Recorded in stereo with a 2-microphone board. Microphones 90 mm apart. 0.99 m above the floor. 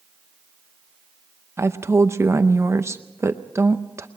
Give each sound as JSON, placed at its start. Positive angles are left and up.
{"t": 1.6, "sound": "a woman speaking", "side_deg": -30, "distance_m": 0.6}